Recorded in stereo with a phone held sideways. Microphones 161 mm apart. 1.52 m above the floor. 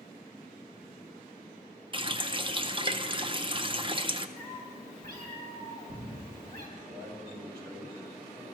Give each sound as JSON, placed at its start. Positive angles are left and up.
{"t": 1.9, "sound": "a running tap", "side_deg": -30, "distance_m": 0.6}
{"t": 4.4, "sound": "a cat meowing", "side_deg": -65, "distance_m": 3.0}
{"t": 6.8, "sound": "a man speaking", "side_deg": -85, "distance_m": 6.0}